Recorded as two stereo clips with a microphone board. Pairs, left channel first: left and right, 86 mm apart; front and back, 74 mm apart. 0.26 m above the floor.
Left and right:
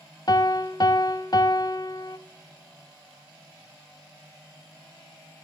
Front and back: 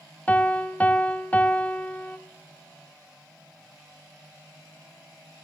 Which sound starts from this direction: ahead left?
A piano, at 0.3 s.